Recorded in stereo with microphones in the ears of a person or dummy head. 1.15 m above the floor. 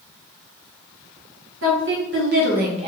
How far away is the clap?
No clap in this recording.